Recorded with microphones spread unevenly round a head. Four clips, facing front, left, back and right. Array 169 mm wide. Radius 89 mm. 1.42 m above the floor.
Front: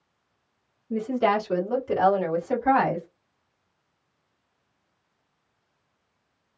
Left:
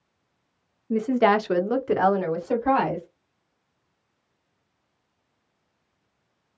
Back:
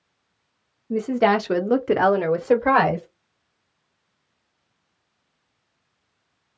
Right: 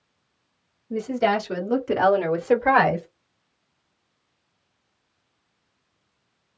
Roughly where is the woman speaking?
Behind left.